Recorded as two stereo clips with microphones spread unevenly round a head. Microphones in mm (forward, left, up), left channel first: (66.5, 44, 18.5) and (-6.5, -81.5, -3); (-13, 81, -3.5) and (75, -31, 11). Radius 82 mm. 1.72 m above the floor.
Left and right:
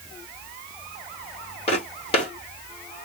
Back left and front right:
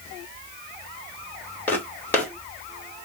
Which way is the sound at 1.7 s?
50° left.